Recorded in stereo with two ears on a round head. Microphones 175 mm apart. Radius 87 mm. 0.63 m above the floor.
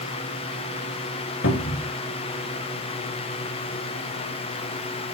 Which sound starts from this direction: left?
A cupboard door, at 1.4 s.